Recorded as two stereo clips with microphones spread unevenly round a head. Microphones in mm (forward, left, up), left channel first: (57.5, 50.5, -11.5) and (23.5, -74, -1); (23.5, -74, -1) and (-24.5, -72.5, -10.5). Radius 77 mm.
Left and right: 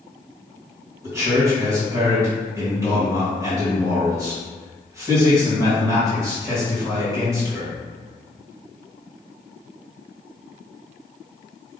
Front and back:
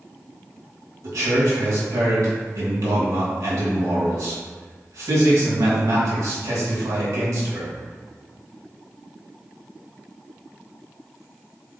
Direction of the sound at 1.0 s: 175° right.